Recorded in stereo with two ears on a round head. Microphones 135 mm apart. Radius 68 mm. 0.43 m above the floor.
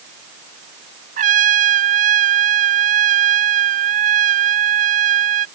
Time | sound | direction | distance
1.2 | a trumpet | 55° right (ahead or behind) | ?